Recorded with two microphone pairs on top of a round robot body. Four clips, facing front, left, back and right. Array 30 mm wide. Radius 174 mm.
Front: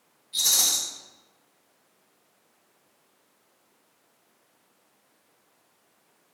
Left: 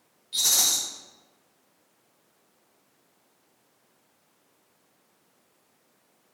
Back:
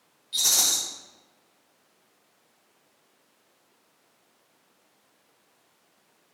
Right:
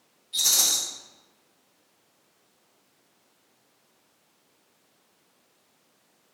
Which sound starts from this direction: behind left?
A rattle, at 0.3 s.